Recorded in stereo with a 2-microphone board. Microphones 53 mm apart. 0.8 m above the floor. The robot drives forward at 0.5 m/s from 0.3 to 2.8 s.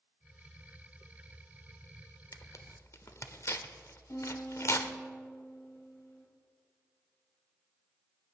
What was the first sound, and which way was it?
Tearing paper, 65° left (ahead or behind).